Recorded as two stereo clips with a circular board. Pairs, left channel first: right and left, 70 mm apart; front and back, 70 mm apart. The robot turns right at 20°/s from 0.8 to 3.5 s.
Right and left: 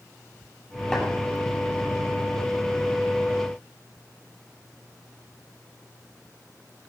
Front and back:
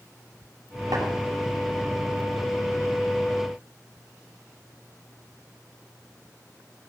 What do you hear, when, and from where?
0.9 s tapping: 170° right, 9 m